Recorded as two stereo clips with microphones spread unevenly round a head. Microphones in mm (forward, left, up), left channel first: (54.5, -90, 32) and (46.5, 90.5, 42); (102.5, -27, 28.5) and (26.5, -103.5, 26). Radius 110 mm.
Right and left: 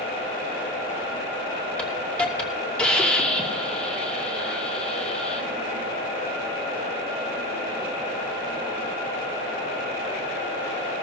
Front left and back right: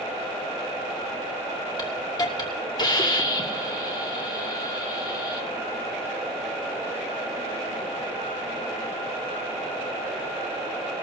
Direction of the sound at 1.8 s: 5° right.